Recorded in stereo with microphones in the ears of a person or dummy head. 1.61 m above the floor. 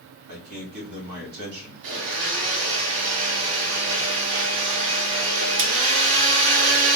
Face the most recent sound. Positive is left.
turn(degrees=-75)  # may be behind; listen again after turning